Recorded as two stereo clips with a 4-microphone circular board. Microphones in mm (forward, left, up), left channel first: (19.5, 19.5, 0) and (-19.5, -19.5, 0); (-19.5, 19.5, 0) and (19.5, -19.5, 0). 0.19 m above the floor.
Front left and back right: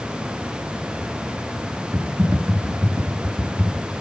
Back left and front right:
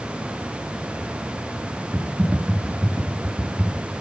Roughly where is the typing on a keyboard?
Right.